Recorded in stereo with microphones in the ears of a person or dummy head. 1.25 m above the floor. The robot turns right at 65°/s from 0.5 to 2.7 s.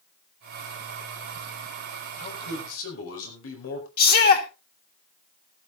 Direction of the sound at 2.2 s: 40° left.